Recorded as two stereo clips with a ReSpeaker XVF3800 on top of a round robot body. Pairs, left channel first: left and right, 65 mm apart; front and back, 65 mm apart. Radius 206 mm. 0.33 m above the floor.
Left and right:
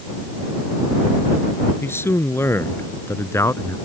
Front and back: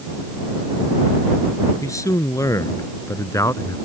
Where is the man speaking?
35° left; by 3.8 s 45° left.